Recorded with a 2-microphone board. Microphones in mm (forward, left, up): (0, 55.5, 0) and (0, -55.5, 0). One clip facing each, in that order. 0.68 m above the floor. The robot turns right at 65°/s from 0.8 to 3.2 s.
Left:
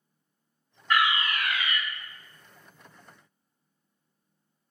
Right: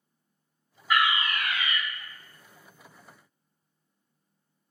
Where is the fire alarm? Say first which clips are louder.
Even; 10° right (ahead or behind), 1.6 m; by 1.8 s 20° right (ahead or behind), 1.6 m.